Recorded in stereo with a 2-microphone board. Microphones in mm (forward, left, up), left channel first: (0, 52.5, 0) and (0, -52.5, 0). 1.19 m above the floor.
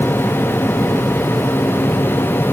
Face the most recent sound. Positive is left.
No sound to turn to.